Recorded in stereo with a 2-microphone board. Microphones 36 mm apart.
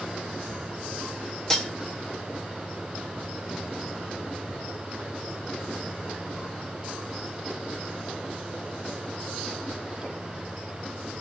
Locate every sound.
1.5 s cutlery clinking: 20° left (ahead or behind), 0.8 m